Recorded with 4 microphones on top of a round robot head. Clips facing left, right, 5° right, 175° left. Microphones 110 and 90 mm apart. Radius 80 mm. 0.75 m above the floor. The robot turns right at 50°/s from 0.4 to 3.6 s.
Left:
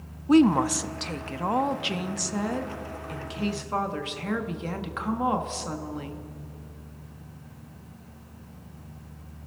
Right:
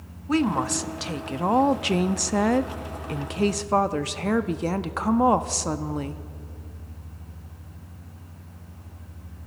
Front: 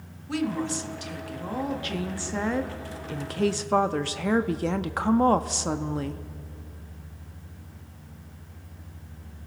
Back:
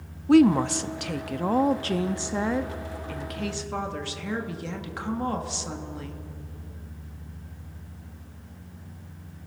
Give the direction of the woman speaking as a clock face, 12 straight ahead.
7 o'clock.